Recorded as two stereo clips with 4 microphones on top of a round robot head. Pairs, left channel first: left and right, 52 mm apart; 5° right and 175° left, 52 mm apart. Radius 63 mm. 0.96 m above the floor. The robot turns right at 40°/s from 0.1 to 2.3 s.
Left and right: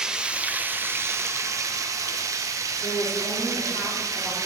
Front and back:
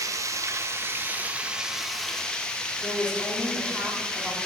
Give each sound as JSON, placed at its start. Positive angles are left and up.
{"t": 0.0, "sound": "running water", "azimuth_deg": -170, "distance_m": 0.9}
{"t": 2.8, "sound": "a woman speaking", "azimuth_deg": 70, "distance_m": 3.0}